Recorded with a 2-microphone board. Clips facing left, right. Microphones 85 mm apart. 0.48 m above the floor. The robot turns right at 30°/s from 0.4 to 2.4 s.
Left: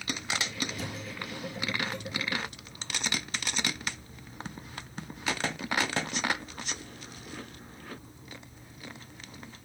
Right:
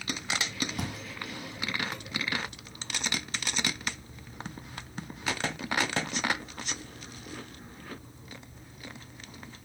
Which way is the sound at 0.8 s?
70° right (ahead or behind).